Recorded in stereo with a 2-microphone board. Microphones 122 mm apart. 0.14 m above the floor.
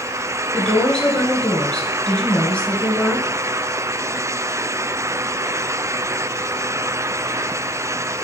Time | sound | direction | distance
0.5 | a woman speaking | 10° left (ahead or behind) | 1.9 m